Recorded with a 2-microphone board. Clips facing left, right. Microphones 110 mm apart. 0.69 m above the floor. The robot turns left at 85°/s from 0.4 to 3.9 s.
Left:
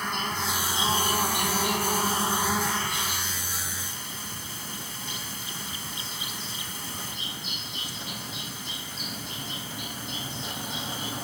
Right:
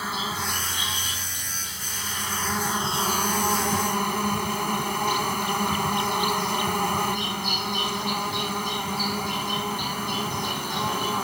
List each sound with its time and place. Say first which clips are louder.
0.0 s an insect: right 1 dB; 175° right; by 11.2 s 110° right